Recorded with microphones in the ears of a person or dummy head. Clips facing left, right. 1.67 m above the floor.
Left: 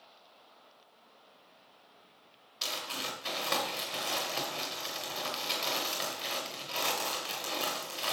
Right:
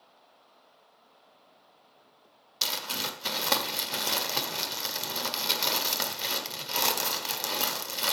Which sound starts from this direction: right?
Crumpling, at 2.6 s.